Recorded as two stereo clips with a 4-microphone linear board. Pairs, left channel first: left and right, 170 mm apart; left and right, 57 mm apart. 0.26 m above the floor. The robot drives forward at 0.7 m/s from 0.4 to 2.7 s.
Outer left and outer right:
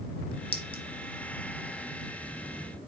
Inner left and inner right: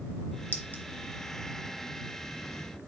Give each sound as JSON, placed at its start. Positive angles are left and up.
{"t": 0.5, "sound": "a clink", "side_deg": 30, "distance_m": 0.9}